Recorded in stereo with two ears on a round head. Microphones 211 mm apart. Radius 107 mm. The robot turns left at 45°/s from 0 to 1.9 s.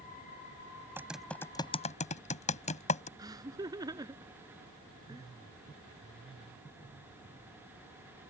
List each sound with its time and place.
1.0 s typing on a keyboard: 10° right (ahead or behind); by 3.1 s 30° left (ahead or behind)
3.2 s laughter: 15° right (ahead or behind)